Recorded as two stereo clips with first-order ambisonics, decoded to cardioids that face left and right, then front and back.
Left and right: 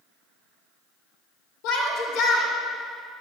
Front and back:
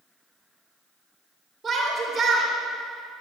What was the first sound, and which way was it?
A shout, 95° left.